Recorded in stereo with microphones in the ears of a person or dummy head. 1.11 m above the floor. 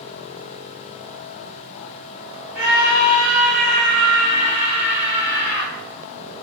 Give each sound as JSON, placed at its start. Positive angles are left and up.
{"t": 2.5, "sound": "a scream", "side_deg": -40, "distance_m": 1.0}